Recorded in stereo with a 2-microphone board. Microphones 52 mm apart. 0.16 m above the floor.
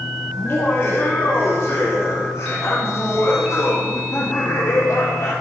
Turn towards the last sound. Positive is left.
turn(degrees=65)  # may be behind; listen again after turning